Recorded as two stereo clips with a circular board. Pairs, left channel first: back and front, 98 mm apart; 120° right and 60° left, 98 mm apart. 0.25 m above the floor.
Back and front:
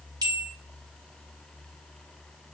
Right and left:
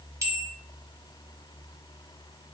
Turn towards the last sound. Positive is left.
turn(degrees=20)